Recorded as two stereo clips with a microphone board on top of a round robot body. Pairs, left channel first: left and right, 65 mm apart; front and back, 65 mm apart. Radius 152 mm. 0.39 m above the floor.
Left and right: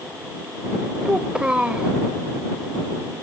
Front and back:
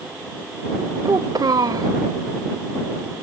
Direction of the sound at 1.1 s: 165° right.